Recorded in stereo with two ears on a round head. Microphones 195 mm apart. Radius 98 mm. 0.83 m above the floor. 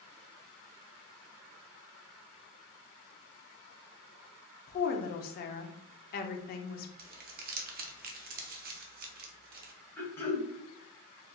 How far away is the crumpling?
About 0.6 m.